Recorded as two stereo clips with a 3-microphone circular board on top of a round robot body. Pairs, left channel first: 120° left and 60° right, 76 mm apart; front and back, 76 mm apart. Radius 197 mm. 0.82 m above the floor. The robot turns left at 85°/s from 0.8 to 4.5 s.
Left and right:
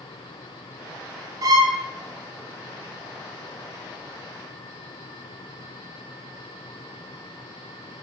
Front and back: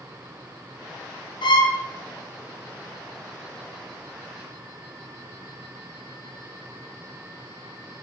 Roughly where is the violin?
Ahead.